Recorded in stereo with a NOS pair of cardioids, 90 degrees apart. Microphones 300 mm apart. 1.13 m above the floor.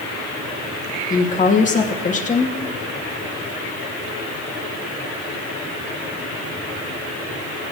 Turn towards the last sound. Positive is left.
turn(degrees=25)